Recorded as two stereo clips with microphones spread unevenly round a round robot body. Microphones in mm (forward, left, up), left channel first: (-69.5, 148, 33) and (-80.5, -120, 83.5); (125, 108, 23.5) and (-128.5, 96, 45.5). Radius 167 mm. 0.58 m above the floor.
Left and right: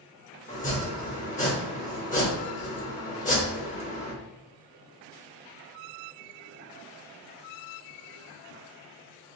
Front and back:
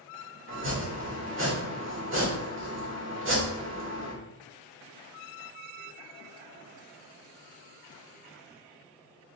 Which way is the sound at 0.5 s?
140° left.